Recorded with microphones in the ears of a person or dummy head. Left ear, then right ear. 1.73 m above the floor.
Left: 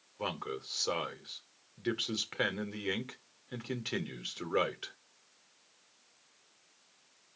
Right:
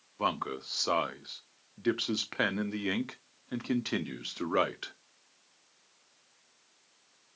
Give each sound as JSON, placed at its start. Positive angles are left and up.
{"t": 0.2, "sound": "a man speaking", "side_deg": -20, "distance_m": 0.8}